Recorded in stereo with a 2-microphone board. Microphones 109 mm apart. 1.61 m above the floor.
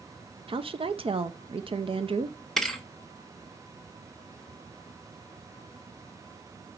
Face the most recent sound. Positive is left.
turn(degrees=5)  # may be behind; listen again after turning